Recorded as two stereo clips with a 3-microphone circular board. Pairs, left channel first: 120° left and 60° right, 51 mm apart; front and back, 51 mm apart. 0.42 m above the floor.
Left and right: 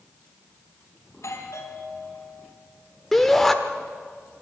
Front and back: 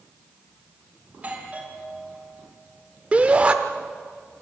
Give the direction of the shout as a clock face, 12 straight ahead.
5 o'clock.